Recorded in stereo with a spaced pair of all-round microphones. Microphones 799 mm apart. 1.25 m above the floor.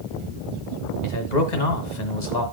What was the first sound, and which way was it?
A man speaking, 55° left (ahead or behind).